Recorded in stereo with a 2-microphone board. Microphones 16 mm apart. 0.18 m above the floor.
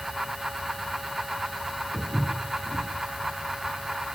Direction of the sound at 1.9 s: 90° left.